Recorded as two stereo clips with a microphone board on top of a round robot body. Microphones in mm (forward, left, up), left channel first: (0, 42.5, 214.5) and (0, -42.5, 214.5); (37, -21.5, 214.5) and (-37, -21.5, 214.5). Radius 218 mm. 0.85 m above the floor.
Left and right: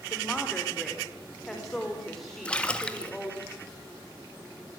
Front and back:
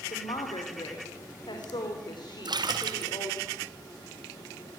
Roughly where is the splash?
Behind.